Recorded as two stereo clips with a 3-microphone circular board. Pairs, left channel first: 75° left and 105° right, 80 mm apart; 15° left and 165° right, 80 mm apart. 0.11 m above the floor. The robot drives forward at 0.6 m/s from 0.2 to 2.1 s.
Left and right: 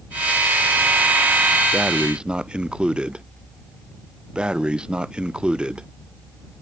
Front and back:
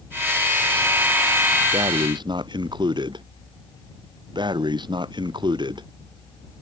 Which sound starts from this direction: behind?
Breathing, at 1.7 s.